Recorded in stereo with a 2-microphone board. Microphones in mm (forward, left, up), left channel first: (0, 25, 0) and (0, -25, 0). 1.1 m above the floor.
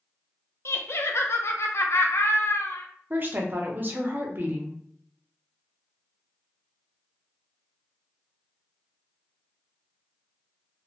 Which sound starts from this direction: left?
Laughter, at 0.7 s.